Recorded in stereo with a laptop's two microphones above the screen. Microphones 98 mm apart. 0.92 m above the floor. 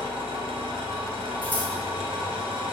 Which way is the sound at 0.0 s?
70° right (ahead or behind).